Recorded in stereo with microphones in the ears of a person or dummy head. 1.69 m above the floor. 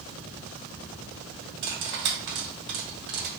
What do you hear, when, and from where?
1.6 s cutlery clinking: 50° right (ahead or behind), 1.2 m